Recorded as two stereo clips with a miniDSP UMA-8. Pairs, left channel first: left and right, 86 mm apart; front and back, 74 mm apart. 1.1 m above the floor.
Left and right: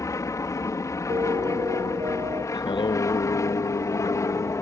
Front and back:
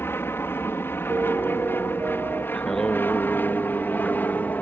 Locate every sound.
0.0 s an aircraft: 50° left; by 4.6 s 55° left
1.1 s a piano: 120° right
2.5 s singing: 85° left